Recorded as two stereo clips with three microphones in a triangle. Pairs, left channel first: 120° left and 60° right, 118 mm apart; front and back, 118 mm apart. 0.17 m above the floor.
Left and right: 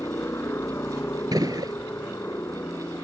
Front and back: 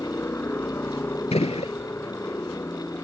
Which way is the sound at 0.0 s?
60° left.